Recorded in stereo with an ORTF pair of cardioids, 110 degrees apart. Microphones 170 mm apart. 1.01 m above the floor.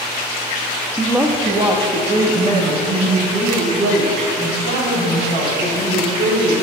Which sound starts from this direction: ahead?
A woman speaking, at 1.0 s.